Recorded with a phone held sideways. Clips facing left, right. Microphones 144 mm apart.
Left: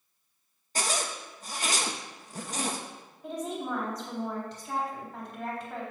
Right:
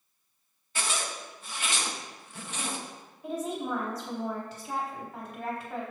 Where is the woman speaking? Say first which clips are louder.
Right 1 dB; 5° right (ahead or behind), 4.5 m.